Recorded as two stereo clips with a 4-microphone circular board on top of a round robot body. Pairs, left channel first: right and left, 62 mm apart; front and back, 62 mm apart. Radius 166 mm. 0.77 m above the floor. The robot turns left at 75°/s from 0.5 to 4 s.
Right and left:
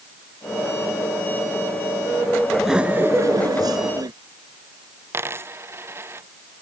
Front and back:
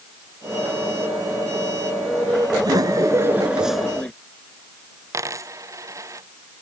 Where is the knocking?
I don't hear knocking.